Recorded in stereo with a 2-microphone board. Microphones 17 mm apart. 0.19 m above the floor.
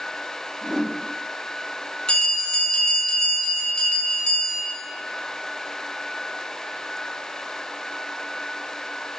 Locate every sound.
0.6 s a whoosh: centre (ahead or behind), 1.0 m
2.1 s a bell: 55° left (ahead or behind), 0.8 m